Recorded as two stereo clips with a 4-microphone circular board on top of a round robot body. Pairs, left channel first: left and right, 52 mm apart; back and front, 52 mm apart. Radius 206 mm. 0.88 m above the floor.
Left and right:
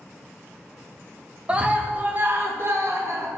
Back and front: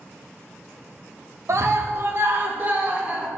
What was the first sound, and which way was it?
A scream, 25° right.